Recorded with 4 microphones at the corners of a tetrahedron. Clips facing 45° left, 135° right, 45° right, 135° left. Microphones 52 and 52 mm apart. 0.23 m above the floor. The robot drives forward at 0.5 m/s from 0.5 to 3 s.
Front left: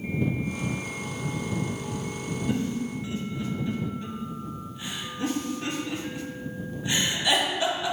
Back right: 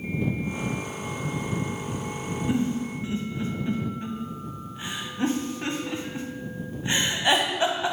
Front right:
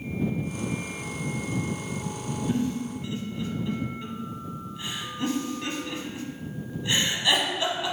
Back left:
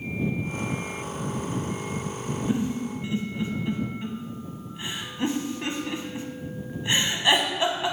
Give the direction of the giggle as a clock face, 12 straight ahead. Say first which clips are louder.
Back right 3 dB, even; 6 o'clock.